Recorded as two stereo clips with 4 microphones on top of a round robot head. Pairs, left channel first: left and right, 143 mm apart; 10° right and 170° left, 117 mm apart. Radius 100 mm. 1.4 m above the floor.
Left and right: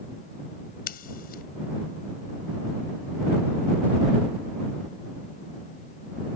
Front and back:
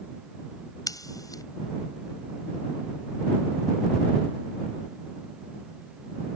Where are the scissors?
50° left.